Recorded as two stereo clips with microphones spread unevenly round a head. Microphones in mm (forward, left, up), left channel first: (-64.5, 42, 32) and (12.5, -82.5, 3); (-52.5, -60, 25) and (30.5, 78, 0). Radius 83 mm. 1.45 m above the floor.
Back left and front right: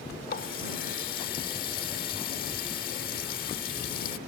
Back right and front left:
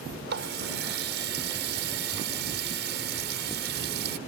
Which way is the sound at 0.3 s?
85° left.